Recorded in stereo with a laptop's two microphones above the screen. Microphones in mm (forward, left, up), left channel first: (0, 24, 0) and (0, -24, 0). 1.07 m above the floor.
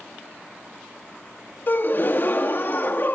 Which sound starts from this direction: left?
A gasp, at 1.7 s.